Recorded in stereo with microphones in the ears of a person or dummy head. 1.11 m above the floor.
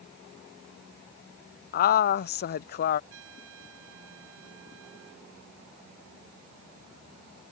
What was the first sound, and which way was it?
A woman speaking, 55° left (ahead or behind).